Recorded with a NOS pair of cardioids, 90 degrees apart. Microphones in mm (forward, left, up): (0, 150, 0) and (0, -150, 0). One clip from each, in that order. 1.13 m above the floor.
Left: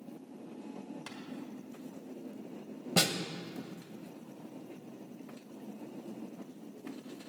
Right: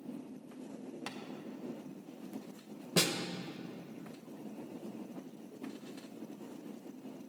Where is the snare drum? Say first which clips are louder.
Left 2 dB; 10° left, 0.8 m.